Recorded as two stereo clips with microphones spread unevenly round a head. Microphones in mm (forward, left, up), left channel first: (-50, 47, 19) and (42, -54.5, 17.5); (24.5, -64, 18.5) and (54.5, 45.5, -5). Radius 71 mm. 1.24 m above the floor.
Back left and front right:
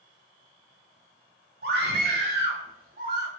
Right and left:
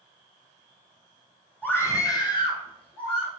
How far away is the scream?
About 0.9 m.